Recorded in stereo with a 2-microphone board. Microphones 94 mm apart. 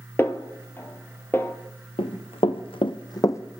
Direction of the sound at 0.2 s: 25° left (ahead or behind).